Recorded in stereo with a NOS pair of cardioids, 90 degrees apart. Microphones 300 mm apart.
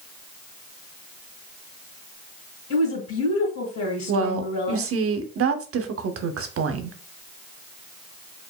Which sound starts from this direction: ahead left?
A woman speaking, at 2.7 s.